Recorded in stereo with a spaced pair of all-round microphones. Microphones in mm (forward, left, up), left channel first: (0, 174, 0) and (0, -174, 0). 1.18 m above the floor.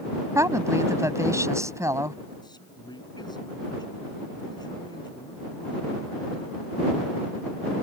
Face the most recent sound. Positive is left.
turn(degrees=10)  # may be behind; listen again after turning